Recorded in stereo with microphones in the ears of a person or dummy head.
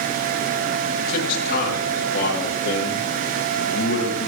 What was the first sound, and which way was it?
A man speaking, 50° left (ahead or behind).